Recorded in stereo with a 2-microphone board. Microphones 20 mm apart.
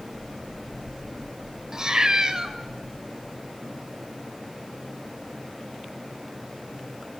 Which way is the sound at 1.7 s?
35° right (ahead or behind).